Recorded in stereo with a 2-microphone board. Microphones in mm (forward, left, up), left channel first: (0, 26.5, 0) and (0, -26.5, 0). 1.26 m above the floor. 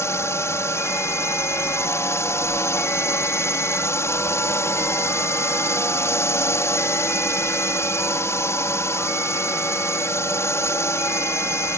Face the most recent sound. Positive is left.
turn(degrees=60)  # may be behind; listen again after turning